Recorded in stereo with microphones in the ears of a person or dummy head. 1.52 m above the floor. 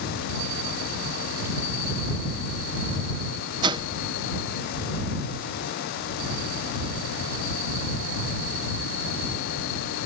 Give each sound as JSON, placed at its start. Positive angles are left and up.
{"t": 3.6, "sound": "a whoosh", "side_deg": -25}